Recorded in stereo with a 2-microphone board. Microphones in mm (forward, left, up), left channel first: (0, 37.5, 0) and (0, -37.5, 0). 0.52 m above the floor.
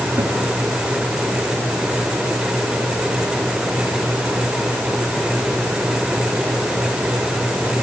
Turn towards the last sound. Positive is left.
turn(degrees=-35)  # may be behind; listen again after turning